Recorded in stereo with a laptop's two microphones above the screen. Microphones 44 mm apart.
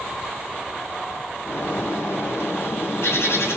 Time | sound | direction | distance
1.4 | a bird | 65° left (ahead or behind) | 0.7 m